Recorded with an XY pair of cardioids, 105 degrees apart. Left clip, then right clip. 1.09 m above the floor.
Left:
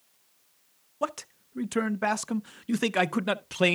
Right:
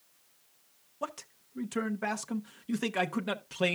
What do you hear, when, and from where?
1.0 s a man speaking: 40° left, 0.5 m